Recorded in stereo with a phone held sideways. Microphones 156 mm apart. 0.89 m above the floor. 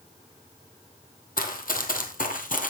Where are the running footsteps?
65° left (ahead or behind), 2 m; by 2.7 s 60° left (ahead or behind), 1.7 m.